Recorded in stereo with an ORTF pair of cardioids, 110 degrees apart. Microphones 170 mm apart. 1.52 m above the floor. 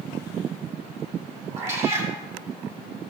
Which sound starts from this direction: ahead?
A cat meowing, at 1.6 s.